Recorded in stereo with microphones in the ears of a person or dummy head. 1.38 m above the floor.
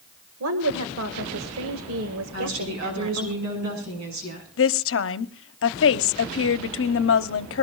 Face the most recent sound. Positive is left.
turn(degrees=65)  # may be behind; listen again after turning